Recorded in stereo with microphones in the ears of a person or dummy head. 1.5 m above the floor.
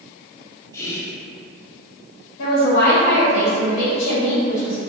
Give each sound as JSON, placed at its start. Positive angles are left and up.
{"t": 0.7, "sound": "whispering", "side_deg": 10, "distance_m": 0.6}
{"t": 2.4, "sound": "a woman speaking", "side_deg": 70, "distance_m": 1.4}